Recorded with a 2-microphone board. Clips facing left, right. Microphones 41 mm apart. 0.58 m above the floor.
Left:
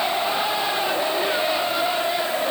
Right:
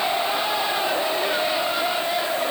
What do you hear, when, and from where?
Only background noise.